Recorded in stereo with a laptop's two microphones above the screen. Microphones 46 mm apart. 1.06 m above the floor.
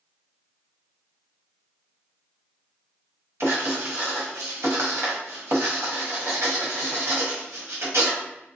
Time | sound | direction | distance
3.4 | writing | 65° right (ahead or behind) | 1.3 m